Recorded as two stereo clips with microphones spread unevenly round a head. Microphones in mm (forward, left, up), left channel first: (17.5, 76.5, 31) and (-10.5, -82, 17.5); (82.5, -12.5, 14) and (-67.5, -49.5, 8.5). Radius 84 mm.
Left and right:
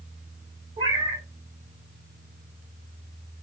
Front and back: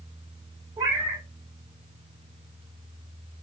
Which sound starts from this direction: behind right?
A cat meowing, at 0.8 s.